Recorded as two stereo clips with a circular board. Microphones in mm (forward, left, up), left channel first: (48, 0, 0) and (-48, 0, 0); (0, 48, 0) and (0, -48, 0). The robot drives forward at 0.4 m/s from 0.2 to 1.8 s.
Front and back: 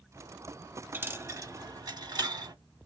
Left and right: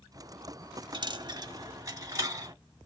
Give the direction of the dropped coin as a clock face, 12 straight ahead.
4 o'clock.